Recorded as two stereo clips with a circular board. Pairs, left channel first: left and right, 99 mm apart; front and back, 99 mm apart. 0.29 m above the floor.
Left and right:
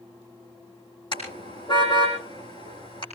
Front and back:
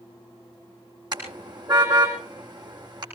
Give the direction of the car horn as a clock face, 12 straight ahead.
8 o'clock.